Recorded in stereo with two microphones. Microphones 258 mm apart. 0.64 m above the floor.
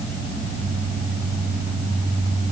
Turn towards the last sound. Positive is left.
No sound to turn to.